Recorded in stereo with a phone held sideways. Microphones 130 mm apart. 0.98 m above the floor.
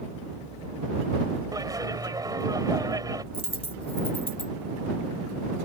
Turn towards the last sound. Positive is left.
turn(degrees=50)  # may be behind; listen again after turning